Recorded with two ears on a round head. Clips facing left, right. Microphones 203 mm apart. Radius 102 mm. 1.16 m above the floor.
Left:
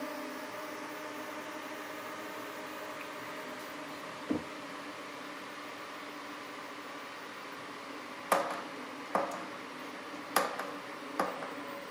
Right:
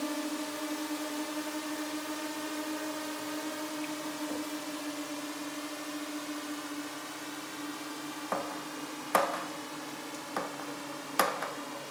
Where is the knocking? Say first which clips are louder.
Left 7 dB; 65° left (ahead or behind).